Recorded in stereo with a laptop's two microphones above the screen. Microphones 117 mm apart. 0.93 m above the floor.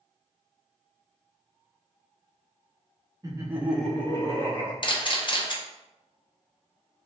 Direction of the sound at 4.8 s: 45° left (ahead or behind).